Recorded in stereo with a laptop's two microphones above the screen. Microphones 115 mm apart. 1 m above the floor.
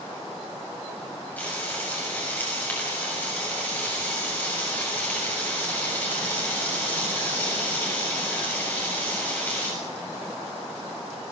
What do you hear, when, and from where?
1.4 s frying: 15° left (ahead or behind), 7 m